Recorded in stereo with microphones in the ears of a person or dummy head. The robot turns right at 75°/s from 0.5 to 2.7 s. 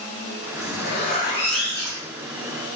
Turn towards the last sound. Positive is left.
turn(degrees=-90)